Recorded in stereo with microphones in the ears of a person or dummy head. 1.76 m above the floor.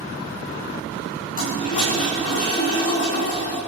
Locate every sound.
1.4 s a toilet flushing: 45° left (ahead or behind), 5.5 m